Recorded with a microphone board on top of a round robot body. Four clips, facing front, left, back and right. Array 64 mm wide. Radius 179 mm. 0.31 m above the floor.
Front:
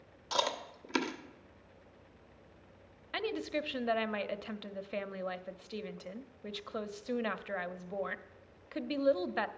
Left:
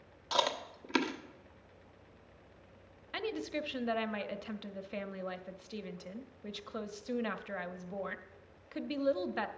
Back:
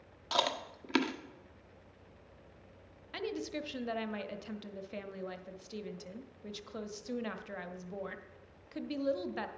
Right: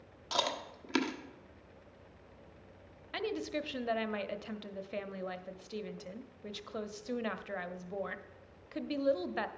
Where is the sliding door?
I don't hear a sliding door.